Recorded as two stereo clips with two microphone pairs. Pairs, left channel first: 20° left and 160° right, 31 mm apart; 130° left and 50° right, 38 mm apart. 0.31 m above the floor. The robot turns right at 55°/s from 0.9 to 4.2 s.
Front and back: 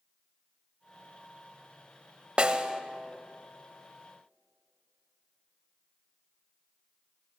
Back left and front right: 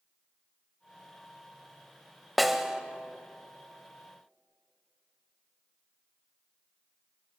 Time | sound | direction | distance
2.4 | a snare drum | 135° right | 1.2 m